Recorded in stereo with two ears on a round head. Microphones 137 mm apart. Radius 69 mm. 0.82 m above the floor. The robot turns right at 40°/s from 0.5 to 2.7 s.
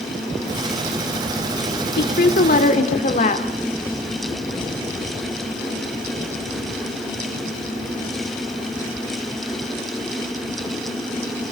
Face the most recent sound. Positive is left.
turn(degrees=50)  # may be behind; listen again after turning